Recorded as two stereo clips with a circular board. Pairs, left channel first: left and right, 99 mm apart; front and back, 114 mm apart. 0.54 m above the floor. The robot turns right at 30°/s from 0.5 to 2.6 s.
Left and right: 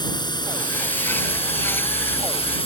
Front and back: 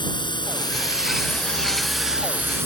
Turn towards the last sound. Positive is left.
turn(degrees=110)